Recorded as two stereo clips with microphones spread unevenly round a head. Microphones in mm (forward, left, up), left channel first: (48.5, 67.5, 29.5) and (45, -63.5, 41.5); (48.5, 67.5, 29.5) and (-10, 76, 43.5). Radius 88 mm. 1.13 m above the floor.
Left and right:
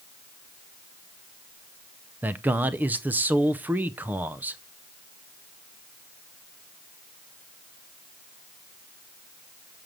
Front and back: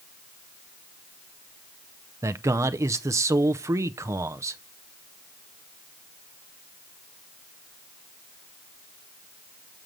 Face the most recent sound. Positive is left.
turn(degrees=-170)